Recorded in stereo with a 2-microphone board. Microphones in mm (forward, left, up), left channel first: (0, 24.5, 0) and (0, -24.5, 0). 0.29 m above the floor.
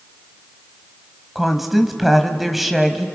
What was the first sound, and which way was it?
A woman speaking, 5° right (ahead or behind).